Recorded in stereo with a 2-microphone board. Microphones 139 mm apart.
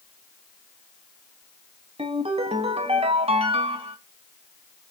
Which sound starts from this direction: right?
A ringtone, at 2.0 s.